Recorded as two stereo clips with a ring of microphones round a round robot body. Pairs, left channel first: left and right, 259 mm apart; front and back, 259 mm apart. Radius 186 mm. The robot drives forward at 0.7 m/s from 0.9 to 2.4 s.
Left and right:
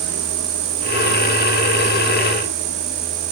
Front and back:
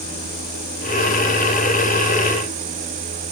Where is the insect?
70° right; by 3.3 s 115° right.